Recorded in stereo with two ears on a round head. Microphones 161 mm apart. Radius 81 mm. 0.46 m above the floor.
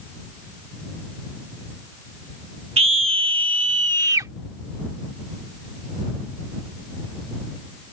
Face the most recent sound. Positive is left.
turn(degrees=-20)  # may be behind; listen again after turning